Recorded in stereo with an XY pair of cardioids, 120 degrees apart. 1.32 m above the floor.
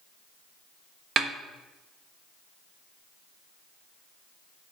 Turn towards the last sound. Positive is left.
turn(degrees=-45)